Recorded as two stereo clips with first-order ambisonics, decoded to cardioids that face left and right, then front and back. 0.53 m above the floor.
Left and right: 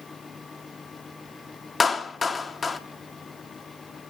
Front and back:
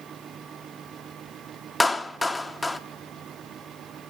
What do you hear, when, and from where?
1.8 s a clap: 60° left, 0.8 m